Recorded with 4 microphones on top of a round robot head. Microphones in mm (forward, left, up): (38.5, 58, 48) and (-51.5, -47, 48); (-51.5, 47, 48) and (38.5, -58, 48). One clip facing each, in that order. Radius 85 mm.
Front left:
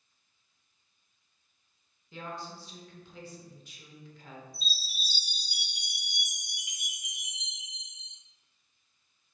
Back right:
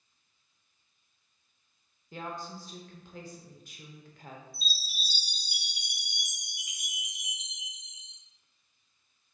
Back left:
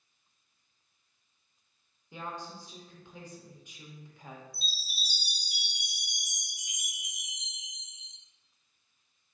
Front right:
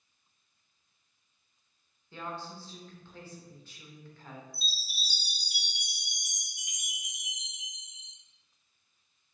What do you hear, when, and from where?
2.1 s a woman speaking: 160° right, 0.9 m
4.5 s a chime: 70° right, 1.4 m